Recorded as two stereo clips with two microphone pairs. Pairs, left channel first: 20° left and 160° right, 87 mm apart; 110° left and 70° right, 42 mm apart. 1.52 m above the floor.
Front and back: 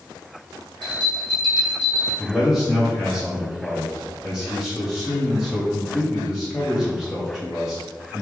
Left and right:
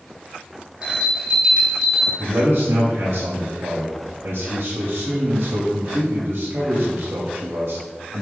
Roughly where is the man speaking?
Ahead right.